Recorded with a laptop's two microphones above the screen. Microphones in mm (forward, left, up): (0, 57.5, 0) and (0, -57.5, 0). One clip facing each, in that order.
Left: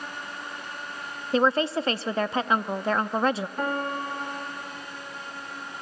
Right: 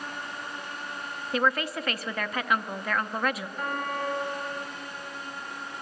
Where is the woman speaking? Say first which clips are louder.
Left 5 dB; 30° left (ahead or behind), 0.6 m.